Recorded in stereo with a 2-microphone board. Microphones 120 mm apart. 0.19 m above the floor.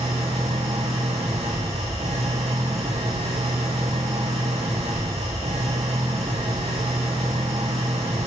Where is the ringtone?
I don't hear a ringtone.